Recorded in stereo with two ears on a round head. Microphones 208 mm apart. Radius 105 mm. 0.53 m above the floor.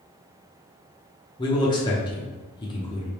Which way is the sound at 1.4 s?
20° left (ahead or behind).